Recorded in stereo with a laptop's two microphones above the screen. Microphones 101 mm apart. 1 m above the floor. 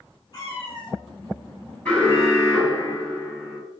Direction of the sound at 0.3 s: 50° left (ahead or behind).